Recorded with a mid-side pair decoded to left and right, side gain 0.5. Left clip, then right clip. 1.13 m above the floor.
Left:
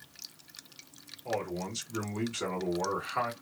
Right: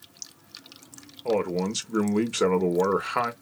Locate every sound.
1.2 s a man speaking: 65° right, 1.1 m